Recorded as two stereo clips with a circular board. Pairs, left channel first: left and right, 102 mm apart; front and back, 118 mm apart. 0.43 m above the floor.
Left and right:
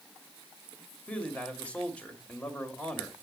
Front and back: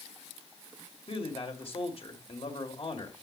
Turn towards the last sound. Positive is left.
turn(degrees=15)